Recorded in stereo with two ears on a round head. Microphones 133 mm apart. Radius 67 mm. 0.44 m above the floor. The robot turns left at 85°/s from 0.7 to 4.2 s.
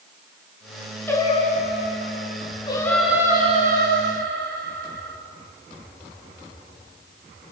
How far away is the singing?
About 4.5 m.